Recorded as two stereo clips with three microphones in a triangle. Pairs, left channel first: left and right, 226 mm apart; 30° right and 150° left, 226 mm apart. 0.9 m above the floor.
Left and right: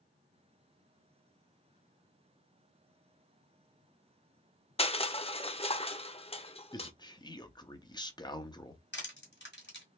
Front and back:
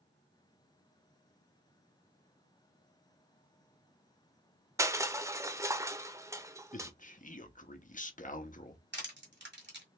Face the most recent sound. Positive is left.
turn(degrees=120)